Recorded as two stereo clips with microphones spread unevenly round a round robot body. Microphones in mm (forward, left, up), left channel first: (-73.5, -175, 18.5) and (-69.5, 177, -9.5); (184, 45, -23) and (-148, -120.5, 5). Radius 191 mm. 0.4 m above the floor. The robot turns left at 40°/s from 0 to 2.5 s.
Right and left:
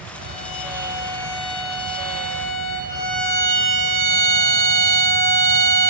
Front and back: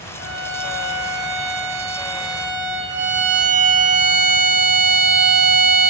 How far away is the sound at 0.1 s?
About 7.5 m.